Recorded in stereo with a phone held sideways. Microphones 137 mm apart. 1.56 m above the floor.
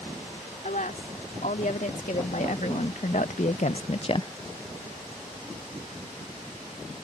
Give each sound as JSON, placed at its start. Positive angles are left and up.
{"t": 0.6, "sound": "a woman speaking", "side_deg": 75}